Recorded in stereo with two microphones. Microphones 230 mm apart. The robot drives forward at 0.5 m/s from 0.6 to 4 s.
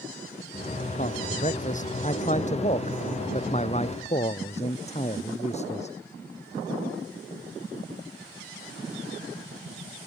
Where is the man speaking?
35° left (ahead or behind); by 5.9 s 30° left (ahead or behind).